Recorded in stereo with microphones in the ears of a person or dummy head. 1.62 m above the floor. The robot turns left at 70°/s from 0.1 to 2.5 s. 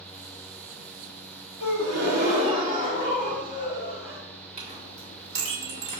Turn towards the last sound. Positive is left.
turn(degrees=-35)  # may be behind; listen again after turning